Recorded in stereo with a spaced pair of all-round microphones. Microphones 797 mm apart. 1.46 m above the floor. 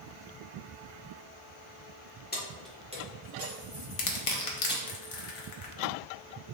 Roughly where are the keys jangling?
Centre.